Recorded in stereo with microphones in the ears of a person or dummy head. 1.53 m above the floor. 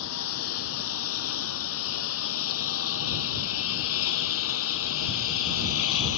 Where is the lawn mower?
85° left.